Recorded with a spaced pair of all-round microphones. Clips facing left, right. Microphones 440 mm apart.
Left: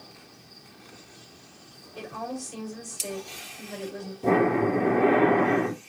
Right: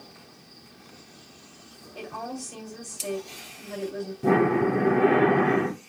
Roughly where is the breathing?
Right.